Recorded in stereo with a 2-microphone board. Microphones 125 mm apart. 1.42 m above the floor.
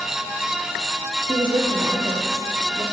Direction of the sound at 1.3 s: 40° right (ahead or behind).